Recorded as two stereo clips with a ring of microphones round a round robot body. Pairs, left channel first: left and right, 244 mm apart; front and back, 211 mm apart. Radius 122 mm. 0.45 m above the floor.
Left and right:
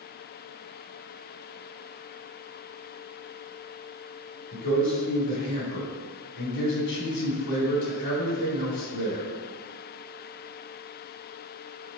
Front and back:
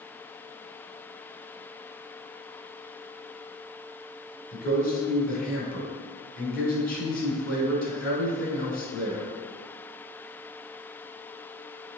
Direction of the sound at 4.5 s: 45° left.